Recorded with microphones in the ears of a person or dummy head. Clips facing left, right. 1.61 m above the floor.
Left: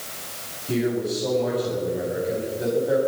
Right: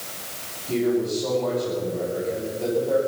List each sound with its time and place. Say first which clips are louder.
0.7 s a man speaking: right 2 dB; 15° left (ahead or behind), 10 m